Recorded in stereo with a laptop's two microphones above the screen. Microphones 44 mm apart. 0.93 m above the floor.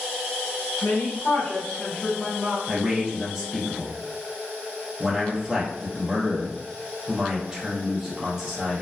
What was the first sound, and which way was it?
A woman speaking, 60° left (ahead or behind).